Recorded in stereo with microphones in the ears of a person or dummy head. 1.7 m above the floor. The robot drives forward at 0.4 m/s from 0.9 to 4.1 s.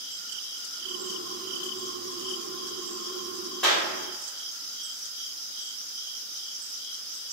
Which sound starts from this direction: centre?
A clap, at 3.6 s.